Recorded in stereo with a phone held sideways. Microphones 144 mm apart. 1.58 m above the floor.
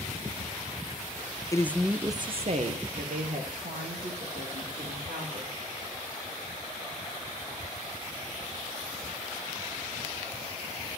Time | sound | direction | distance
1.5 | a woman speaking | 25° left (ahead or behind) | 0.6 m